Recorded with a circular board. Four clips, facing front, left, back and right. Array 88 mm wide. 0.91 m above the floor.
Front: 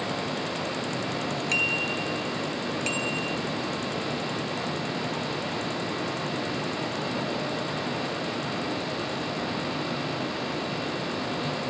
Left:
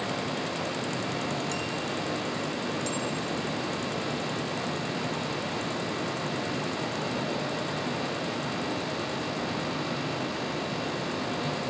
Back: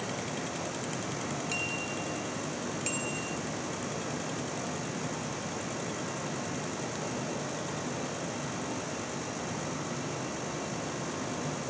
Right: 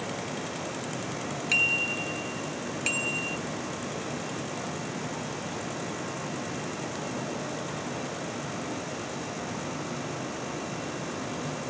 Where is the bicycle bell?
60° right; by 3.4 s 65° right.